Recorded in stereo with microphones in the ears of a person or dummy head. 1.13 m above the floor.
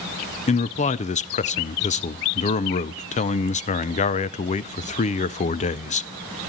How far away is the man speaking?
About 0.5 m.